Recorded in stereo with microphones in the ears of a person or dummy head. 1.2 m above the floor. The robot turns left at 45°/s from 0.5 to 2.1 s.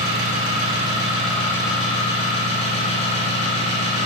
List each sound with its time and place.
0.0 s an engine running: 145° right, 3 m; by 4.0 s 145° left, 3 m